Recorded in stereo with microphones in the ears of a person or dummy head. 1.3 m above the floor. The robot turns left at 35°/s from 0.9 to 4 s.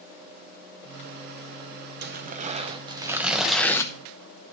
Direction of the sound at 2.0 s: 125° right.